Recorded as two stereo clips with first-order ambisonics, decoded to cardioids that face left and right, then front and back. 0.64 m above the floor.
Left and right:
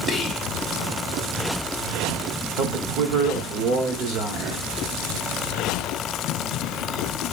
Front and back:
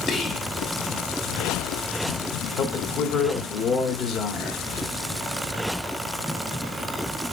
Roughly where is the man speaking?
Ahead right.